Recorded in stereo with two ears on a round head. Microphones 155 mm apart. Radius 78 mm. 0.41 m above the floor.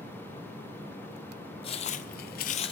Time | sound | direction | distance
1.6 | footsteps | 35° left (ahead or behind) | 1.1 m